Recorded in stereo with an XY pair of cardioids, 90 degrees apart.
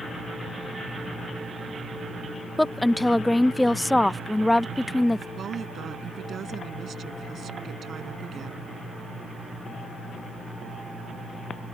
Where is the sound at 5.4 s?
60° right.